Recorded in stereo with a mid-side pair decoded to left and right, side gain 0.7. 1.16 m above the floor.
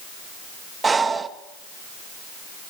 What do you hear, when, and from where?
0.8 s breathing: 20° right, 1.4 m